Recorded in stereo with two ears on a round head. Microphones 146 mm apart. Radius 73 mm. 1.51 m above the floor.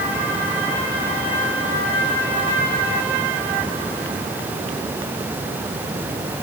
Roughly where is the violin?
I don't hear a violin.